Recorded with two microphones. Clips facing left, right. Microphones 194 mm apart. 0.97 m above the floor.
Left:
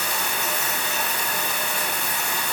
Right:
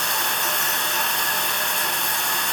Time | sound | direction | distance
0.0 | running water | 5° left (ahead or behind) | 1.2 m